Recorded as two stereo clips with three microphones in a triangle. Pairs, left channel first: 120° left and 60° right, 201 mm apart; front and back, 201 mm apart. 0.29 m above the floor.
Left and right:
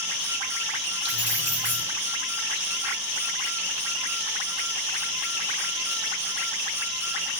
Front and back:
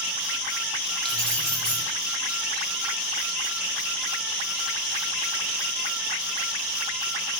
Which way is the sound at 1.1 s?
85° right.